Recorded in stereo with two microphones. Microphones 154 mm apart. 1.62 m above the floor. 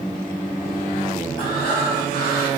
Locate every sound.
1.4 s breathing: 30° left (ahead or behind), 5.5 m